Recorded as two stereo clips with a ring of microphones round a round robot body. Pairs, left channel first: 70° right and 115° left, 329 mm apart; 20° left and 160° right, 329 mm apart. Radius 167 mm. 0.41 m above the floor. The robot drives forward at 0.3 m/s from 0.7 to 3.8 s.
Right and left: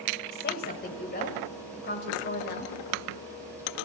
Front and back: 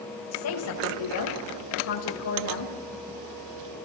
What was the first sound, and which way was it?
A woman speaking, 10° right.